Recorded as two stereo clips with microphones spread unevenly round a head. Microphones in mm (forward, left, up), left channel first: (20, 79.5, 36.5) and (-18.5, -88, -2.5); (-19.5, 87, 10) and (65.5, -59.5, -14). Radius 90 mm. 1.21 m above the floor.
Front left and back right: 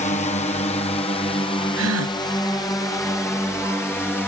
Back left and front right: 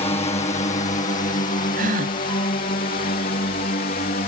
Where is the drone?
95° left; by 4.3 s 160° left.